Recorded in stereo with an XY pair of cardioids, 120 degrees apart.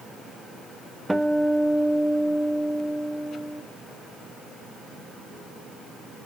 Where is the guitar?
5° right, 0.5 m.